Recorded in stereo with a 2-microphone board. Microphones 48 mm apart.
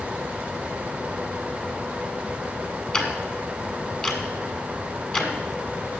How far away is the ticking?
About 2.0 m.